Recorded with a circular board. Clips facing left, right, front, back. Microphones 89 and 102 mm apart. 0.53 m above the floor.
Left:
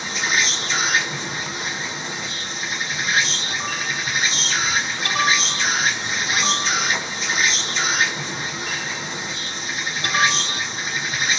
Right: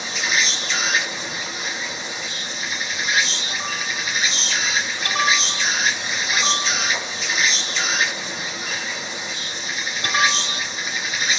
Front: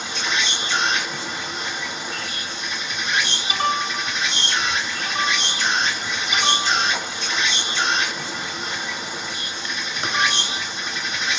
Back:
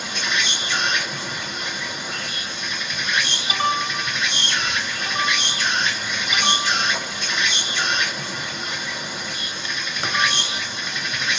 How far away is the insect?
About 1.9 m.